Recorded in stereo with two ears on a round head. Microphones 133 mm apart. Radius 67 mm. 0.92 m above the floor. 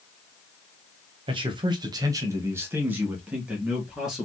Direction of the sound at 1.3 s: 35° right (ahead or behind).